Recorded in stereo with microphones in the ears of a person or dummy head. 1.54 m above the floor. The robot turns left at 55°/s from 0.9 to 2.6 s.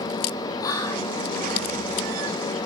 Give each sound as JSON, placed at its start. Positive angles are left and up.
{"t": 0.6, "sound": "whispering", "side_deg": 25, "distance_m": 0.5}